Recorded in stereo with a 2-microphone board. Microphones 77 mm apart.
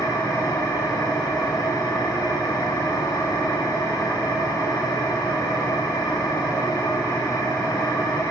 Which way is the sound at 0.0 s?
60° left (ahead or behind).